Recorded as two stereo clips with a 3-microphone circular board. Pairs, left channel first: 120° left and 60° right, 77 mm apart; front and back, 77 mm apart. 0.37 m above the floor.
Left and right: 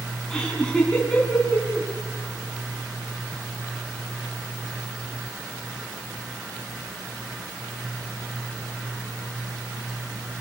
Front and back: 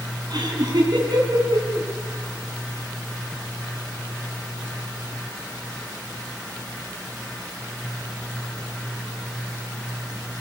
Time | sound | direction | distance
0.3 | laughter | 155° right | 4 m